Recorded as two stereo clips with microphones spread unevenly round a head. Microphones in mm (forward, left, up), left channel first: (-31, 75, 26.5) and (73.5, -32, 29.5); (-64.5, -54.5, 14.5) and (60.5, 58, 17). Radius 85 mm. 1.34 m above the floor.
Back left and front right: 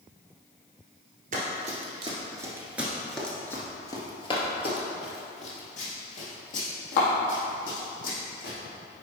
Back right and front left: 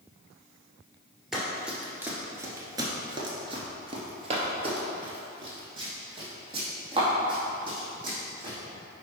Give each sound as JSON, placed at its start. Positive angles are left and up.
{"t": 1.3, "sound": "running footsteps", "azimuth_deg": -45, "distance_m": 1.8}